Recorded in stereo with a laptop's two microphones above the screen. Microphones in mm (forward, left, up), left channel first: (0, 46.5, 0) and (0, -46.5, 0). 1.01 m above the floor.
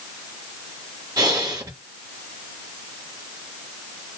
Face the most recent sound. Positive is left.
turn(degrees=-40)  # may be behind; listen again after turning